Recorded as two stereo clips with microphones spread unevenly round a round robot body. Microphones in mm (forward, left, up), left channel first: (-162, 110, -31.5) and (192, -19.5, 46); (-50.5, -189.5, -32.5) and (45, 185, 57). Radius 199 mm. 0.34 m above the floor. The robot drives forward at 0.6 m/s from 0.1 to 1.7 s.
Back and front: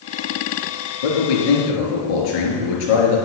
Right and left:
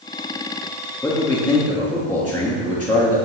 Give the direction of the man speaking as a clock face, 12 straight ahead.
6 o'clock.